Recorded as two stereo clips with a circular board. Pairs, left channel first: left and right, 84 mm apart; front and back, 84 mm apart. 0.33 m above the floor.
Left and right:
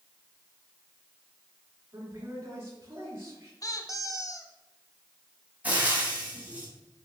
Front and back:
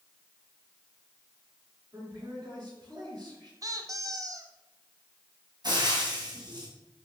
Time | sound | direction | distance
1.9 | a man speaking | 145° right | 5 m
3.6 | a squeak | 135° left | 1.1 m
5.6 | frying | 160° right | 3 m